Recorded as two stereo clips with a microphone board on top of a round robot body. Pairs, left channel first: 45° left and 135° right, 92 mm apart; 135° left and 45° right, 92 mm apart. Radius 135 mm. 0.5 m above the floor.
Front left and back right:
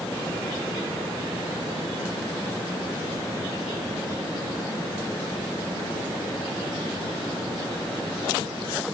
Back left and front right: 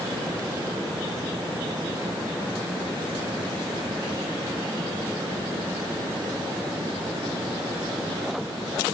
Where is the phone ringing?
No phone ringing in this recording.